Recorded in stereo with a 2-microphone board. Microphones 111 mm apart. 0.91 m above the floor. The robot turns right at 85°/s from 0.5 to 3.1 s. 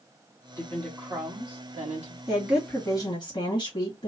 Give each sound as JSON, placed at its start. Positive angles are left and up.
{"t": 0.6, "sound": "a woman speaking", "azimuth_deg": 150, "distance_m": 1.5}
{"t": 2.3, "sound": "a woman speaking", "azimuth_deg": -30, "distance_m": 1.5}